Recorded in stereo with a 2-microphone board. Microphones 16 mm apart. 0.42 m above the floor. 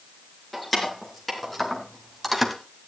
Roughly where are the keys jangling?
Left.